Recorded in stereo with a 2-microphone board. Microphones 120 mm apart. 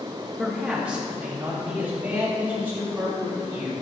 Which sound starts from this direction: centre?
A man speaking, at 0.4 s.